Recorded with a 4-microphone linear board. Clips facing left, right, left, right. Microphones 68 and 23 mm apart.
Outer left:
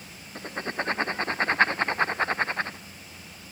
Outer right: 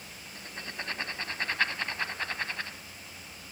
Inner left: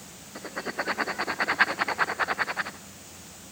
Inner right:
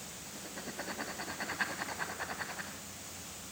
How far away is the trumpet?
No trumpet in this recording.